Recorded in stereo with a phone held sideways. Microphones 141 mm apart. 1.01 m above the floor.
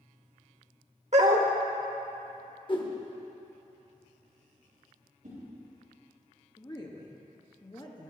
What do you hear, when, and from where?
1.1 s a dog barking: 55° right (ahead or behind), 1.0 m
2.7 s a whoosh: 35° left (ahead or behind), 1.1 m
5.2 s a whoosh: 70° right (ahead or behind), 4 m
6.6 s a woman speaking: 30° left (ahead or behind), 1.3 m